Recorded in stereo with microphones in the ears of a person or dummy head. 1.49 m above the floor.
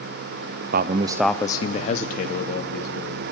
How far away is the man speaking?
About 0.6 m.